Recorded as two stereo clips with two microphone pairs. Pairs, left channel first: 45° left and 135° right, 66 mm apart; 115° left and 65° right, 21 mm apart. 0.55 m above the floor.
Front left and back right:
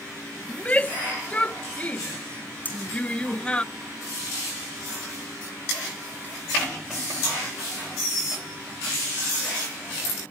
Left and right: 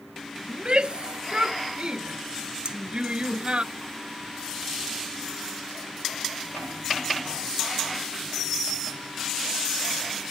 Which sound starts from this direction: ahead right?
A shout, at 0.5 s.